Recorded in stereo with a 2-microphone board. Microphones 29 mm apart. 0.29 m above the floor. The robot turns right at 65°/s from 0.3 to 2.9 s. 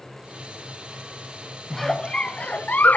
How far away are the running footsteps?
No running footsteps in this recording.